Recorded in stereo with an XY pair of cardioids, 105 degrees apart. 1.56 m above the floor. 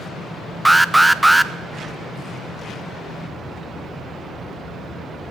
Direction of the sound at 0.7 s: 10° right.